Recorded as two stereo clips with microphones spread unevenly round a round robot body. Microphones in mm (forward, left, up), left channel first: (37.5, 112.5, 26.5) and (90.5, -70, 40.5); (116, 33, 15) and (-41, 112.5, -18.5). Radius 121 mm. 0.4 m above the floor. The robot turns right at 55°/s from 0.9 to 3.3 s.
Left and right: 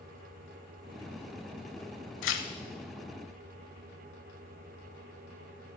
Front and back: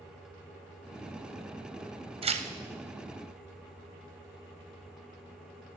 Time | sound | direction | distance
2.2 | tearing paper | 95° left | 0.8 m